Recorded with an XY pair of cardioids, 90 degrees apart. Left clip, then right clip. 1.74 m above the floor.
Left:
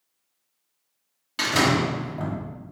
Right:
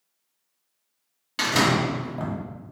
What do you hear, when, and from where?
1.4 s a door slam: 20° right, 2 m